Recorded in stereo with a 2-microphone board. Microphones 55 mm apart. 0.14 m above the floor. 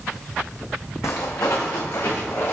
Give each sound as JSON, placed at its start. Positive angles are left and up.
{"t": 1.0, "sound": "footsteps", "side_deg": 70, "distance_m": 0.6}